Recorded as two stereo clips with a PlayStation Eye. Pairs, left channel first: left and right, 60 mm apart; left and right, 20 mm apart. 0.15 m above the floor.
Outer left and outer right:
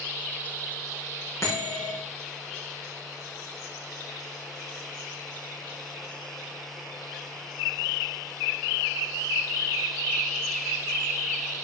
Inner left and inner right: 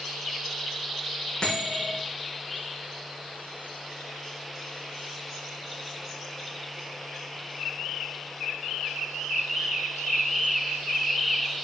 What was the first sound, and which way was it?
A bell, 50° left (ahead or behind).